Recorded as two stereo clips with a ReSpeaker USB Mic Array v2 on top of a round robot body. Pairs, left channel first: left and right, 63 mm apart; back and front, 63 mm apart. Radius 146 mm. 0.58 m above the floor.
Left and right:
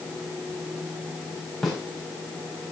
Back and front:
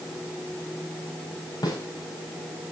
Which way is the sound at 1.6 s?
175° left.